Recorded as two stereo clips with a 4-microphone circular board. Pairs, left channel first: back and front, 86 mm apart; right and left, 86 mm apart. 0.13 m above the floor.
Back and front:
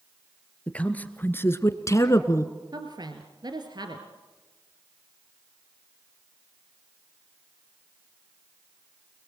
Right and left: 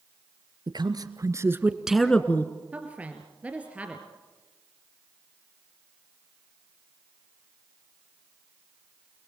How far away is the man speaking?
About 2 m.